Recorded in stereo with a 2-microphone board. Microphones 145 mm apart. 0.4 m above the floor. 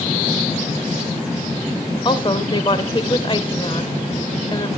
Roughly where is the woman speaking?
Left.